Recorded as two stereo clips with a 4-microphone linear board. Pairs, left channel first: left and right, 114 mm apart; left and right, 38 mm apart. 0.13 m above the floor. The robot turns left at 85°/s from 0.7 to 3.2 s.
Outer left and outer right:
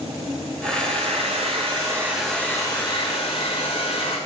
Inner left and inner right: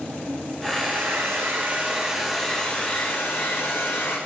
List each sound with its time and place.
0.6 s a hair dryer: 50° right, 8 m; by 4.2 s 100° left, 8 m